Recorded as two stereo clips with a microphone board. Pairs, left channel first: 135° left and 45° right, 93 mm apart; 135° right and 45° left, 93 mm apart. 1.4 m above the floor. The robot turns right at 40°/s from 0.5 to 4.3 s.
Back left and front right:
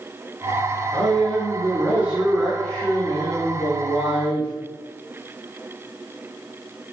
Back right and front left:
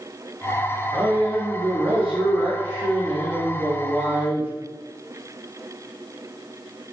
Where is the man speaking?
15° right, 0.6 m; by 4.5 s 120° left, 0.6 m.